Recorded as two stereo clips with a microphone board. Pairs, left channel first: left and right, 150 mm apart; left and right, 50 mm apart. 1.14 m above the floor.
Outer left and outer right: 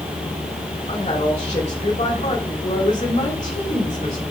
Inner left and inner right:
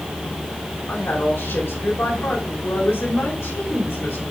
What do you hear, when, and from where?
0.9 s a woman speaking: 50° left (ahead or behind), 2.5 m